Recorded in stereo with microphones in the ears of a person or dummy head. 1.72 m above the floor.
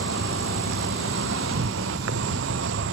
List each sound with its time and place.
0.0 s an insect: 65° right (ahead or behind)